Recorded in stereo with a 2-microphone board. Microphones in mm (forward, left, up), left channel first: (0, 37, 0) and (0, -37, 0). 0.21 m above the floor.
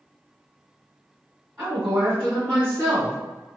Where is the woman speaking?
15° right (ahead or behind), 1.7 m.